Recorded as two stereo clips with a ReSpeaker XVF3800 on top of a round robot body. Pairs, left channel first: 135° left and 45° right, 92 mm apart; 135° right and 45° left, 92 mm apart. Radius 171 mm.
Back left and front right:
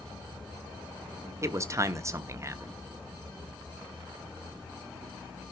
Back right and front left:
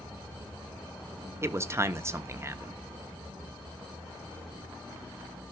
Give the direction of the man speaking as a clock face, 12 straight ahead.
12 o'clock.